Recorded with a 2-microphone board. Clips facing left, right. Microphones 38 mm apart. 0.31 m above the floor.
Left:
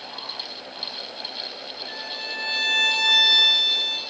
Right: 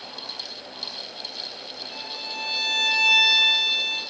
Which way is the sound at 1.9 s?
65° left (ahead or behind).